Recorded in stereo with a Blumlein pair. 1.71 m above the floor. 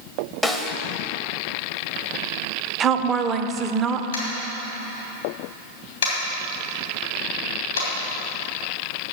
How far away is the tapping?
About 2.5 m.